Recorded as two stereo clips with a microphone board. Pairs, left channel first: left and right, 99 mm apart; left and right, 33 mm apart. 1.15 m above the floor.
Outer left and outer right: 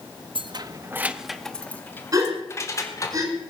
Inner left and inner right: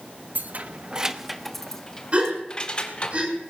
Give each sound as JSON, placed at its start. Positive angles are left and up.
{"t": 0.3, "sound": "keys jangling", "side_deg": -60, "distance_m": 0.9}
{"t": 2.1, "sound": "a gasp", "side_deg": -40, "distance_m": 5.0}